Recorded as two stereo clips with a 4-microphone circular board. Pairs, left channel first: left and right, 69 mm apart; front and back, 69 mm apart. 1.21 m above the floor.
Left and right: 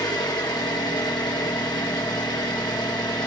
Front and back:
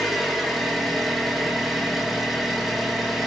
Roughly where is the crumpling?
No crumpling in this recording.